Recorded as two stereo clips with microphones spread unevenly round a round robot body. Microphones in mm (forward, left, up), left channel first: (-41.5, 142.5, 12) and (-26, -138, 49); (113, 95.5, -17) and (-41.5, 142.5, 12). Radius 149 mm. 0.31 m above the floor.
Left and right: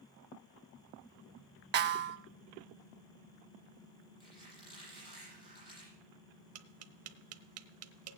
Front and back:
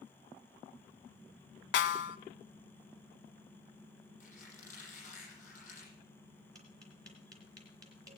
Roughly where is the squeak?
Ahead.